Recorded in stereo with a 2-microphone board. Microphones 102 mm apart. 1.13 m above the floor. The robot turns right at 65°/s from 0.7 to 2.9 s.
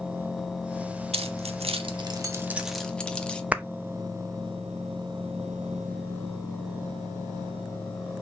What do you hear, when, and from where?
1.1 s keys jangling: 75° right (ahead or behind), 1.4 m; by 3.4 s 10° left (ahead or behind), 1.4 m
3.5 s a clap: 15° right (ahead or behind), 0.8 m